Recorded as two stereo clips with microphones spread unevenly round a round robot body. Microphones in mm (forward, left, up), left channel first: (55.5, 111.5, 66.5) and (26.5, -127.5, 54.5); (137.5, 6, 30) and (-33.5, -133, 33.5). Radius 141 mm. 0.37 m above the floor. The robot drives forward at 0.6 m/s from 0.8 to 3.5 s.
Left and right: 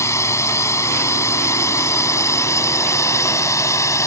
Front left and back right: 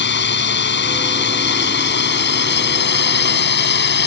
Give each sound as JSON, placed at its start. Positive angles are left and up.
{"t": 0.0, "sound": "a drone", "azimuth_deg": 5}